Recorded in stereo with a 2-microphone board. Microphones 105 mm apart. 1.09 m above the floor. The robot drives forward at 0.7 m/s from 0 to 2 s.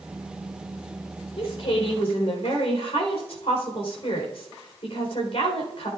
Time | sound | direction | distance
1.4 | a woman speaking | 70° left (ahead or behind) | 4 m